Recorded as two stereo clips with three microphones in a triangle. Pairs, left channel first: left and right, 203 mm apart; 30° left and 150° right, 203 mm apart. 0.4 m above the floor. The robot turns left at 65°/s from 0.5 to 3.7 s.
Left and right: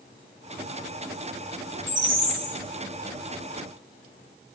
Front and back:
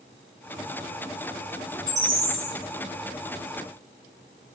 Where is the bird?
55° right, 2.5 m; by 2.6 s 100° right, 2.5 m.